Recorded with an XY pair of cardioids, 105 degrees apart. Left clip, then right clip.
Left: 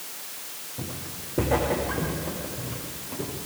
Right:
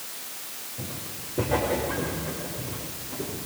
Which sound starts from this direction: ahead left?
Footsteps, at 0.8 s.